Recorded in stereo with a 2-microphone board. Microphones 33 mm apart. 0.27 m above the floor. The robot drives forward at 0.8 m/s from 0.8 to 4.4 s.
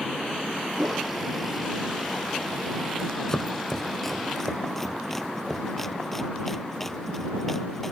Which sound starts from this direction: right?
A whoosh, at 0.8 s.